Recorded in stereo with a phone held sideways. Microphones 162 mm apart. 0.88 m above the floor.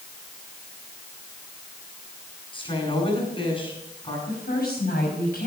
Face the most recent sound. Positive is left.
turn(degrees=75)  # may be behind; listen again after turning